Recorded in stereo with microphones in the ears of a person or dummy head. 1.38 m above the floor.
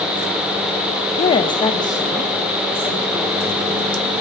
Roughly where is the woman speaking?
Left.